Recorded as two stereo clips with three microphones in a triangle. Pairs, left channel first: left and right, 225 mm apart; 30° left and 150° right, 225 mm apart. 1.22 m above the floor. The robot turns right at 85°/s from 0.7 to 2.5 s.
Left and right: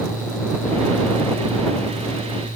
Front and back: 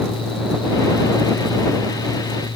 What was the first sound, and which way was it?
Only background noise.